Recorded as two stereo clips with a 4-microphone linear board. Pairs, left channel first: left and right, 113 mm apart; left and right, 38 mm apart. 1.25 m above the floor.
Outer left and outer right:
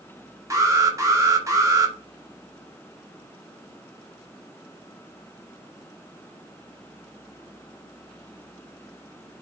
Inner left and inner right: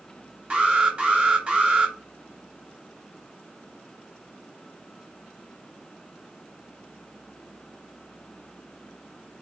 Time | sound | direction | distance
0.5 | an alarm | 30° right (ahead or behind) | 0.9 m